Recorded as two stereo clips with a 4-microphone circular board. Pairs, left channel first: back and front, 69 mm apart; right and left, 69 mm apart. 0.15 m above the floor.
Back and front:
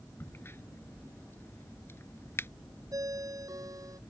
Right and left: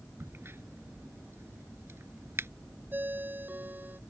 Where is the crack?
135° left.